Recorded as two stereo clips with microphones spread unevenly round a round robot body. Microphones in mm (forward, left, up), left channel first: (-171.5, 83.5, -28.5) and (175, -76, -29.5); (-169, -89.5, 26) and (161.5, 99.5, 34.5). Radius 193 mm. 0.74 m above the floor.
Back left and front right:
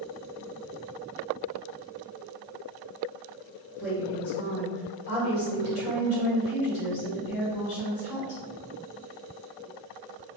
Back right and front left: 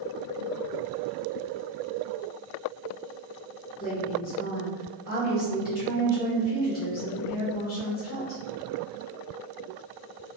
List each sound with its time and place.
3.8 s a woman speaking: 150° left, 1.6 m